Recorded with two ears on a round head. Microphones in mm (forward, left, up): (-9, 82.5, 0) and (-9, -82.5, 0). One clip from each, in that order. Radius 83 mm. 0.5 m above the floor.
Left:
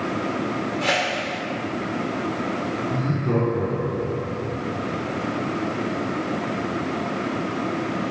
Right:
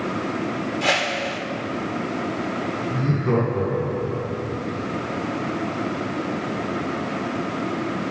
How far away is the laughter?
About 4.5 m.